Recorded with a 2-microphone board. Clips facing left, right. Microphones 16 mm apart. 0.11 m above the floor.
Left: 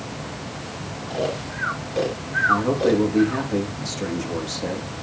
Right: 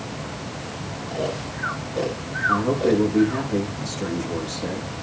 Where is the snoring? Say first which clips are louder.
Left 2 dB; 50° left (ahead or behind), 3.5 m.